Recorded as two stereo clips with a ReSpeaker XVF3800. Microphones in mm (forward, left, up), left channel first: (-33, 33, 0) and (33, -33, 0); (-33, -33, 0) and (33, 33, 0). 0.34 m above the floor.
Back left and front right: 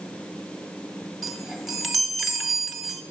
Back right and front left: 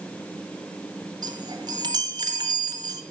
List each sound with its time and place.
1.2 s a chime: 45° left, 1.5 m